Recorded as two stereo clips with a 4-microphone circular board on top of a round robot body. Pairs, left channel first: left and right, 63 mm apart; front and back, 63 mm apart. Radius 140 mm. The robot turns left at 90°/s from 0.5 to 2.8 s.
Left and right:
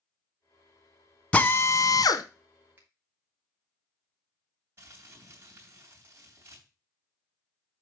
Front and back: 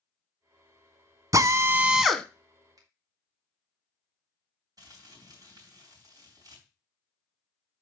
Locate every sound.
1.3 s a drill: 165° left, 1.2 m; by 2.2 s 80° left, 1.2 m
2.8 s a finger snap: 155° right, 2.5 m; by 2.9 s 160° right, 2.5 m
4.8 s crumpling: 150° right, 3.5 m